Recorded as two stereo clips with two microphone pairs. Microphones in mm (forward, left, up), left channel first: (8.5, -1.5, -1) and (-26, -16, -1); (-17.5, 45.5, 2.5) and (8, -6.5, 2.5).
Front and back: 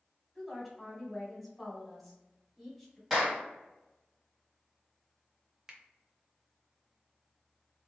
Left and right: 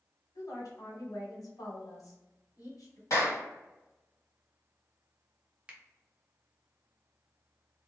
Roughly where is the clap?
Behind left.